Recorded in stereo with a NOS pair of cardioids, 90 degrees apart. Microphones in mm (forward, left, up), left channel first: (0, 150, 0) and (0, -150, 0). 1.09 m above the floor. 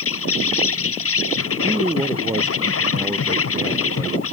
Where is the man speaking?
10° right.